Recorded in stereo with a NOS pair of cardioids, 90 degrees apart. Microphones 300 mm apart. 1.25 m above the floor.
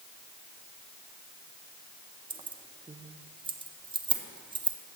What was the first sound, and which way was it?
Keys jangling, 15° right.